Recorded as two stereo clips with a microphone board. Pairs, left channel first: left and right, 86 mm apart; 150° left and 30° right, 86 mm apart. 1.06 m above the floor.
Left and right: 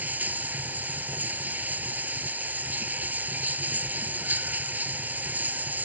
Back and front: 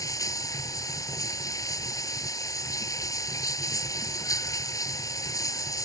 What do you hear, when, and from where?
0.0 s running water: 160° right